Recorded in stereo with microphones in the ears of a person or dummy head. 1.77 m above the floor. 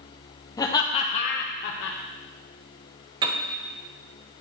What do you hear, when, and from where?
0.6 s laughter: 15° left (ahead or behind), 1.1 m; by 2.0 s 65° left (ahead or behind), 0.8 m
3.2 s a piano: 25° right (ahead or behind), 0.9 m